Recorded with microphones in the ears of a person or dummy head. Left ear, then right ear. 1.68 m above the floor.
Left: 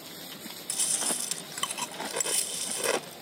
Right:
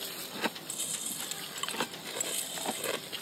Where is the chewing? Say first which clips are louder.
Left 7 dB; 35° left (ahead or behind).